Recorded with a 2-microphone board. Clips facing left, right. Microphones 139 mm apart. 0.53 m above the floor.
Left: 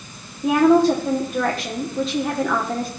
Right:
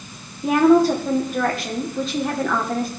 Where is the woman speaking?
Centre (ahead or behind), 1.4 m.